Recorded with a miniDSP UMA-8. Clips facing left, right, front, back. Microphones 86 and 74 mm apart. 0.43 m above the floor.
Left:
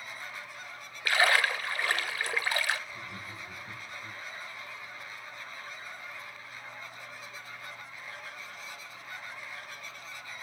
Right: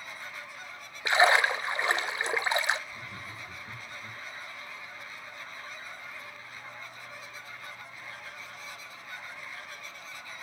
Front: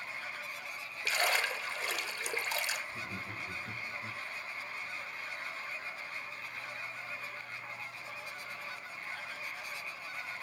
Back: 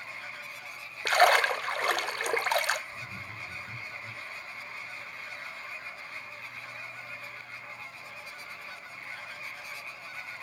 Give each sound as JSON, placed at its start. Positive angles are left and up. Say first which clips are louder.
{"t": 1.1, "sound": "a splash", "louder": "right 3 dB, back 10 dB", "azimuth_deg": -155, "distance_m": 0.6}
{"t": 2.9, "sound": "laughter", "louder": "even, even", "azimuth_deg": 10, "distance_m": 7.0}